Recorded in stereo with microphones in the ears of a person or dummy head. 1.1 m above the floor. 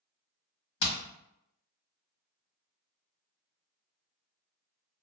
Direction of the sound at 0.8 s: 70° left (ahead or behind).